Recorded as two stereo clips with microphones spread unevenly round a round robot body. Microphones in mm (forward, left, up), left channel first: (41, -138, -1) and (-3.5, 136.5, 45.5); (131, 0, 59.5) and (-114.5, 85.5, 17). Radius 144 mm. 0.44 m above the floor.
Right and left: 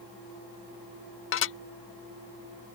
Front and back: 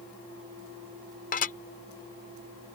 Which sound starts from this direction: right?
Dishes clattering, at 1.3 s.